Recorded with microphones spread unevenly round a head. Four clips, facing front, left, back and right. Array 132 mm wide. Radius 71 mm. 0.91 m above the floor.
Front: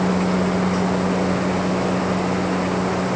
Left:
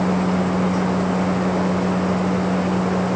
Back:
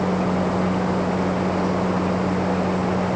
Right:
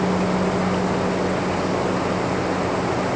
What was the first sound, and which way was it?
Only background noise.